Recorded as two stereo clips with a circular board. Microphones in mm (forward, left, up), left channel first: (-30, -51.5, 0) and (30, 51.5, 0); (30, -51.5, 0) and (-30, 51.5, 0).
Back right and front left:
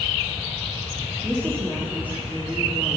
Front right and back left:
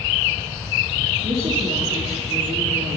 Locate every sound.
1.2 s a woman speaking: 135° left, 4 m